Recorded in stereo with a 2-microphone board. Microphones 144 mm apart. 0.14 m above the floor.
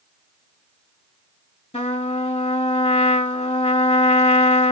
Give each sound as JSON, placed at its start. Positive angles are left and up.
{"t": 1.7, "sound": "a trumpet", "side_deg": 45, "distance_m": 1.2}